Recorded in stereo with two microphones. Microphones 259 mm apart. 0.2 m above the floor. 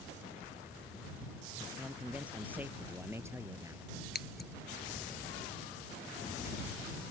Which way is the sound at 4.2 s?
40° left (ahead or behind).